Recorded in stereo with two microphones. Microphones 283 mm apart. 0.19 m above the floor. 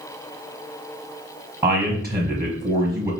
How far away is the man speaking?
About 1.1 m.